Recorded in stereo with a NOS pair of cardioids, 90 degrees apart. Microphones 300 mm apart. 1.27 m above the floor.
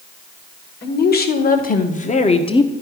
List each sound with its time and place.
0.8 s a woman speaking: 35° left, 1.7 m; by 2.7 s 15° left, 0.8 m